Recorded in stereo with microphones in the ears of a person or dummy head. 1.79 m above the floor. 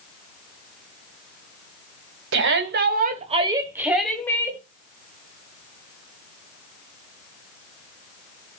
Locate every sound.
2.3 s a shout: 60° right (ahead or behind), 2 m; by 4.6 s 20° left (ahead or behind), 2 m